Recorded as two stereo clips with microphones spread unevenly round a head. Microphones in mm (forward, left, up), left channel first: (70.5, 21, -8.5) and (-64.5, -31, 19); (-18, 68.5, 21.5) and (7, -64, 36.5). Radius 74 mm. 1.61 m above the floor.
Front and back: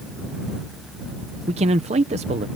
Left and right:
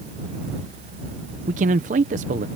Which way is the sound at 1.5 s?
115° right.